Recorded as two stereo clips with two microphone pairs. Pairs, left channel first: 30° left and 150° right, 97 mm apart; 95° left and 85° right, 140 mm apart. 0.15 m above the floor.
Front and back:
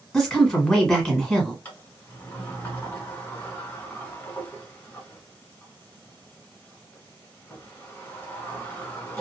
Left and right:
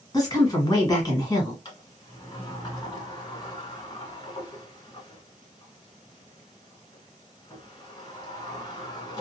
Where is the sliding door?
85° left, 1.2 m.